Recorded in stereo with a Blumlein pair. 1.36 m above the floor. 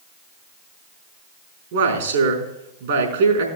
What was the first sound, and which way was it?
A man speaking, 55° right.